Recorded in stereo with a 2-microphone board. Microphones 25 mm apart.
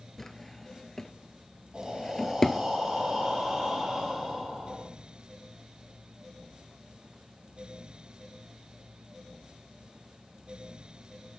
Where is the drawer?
15° left (ahead or behind), 0.6 m.